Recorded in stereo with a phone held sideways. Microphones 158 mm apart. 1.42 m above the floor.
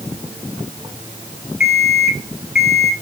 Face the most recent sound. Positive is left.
turn(degrees=0)  # may be behind; listen again after turning